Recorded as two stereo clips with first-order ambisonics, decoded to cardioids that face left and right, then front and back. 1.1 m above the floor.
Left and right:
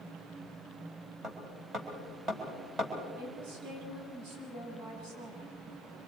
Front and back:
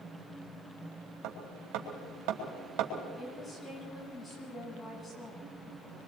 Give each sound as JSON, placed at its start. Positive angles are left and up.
{"t": 1.2, "sound": "hammering", "azimuth_deg": -165, "distance_m": 4.0}
{"t": 3.2, "sound": "a woman speaking", "azimuth_deg": -85, "distance_m": 7.0}